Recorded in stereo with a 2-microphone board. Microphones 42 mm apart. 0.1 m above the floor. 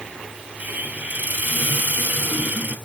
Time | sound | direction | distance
0.6 | a hiss | 40° right (ahead or behind) | 2.0 m